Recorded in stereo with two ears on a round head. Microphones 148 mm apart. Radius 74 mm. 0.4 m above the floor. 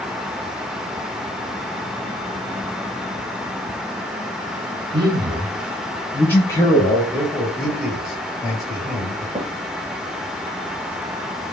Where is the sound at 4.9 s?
35° right (ahead or behind), 1.0 m; by 7.0 s 25° left (ahead or behind), 1.5 m.